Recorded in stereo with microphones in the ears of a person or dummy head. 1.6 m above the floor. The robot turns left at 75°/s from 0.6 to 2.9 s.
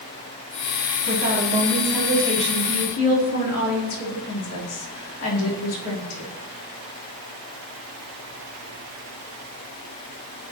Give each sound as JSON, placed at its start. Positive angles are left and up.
{"t": 1.1, "sound": "a woman speaking", "azimuth_deg": -110, "distance_m": 4.0}